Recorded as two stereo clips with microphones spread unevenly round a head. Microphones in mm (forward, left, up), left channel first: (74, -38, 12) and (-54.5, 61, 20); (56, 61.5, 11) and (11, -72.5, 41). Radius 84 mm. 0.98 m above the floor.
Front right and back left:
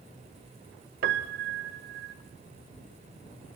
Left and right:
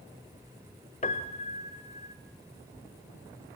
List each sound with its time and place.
1.0 s a piano: 130° left, 1.3 m